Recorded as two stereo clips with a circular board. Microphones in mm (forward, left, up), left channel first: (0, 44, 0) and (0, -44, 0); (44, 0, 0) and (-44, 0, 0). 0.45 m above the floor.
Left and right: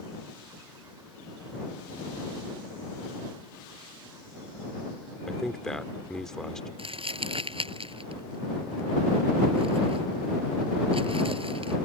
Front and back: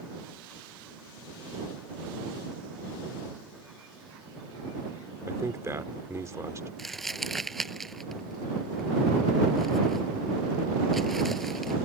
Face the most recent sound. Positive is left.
turn(degrees=-85)